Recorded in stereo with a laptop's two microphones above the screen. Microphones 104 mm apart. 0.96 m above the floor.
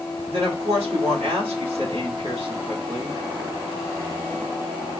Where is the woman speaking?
60° right (ahead or behind), 1.8 m.